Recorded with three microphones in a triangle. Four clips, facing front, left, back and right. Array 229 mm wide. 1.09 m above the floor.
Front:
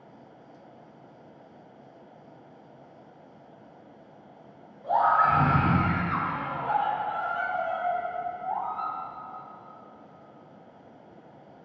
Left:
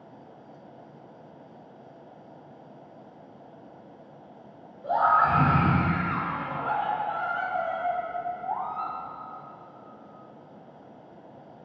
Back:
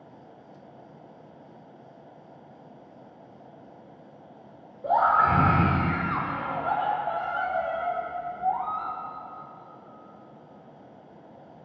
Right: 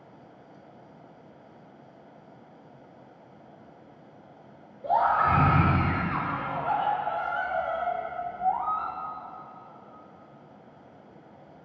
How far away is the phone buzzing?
I don't hear a phone buzzing.